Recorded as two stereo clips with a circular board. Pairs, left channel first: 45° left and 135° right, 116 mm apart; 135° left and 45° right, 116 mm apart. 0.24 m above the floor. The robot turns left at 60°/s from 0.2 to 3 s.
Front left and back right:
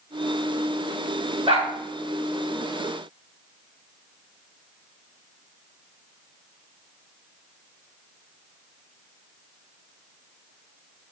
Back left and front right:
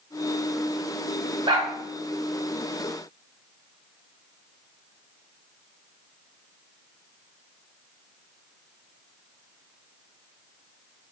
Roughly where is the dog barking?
Right.